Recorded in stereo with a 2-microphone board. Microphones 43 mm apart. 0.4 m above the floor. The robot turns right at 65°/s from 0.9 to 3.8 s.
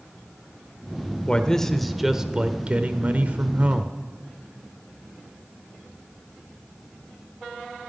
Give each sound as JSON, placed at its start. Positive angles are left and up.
{"t": 1.3, "sound": "a man speaking", "azimuth_deg": 140, "distance_m": 1.0}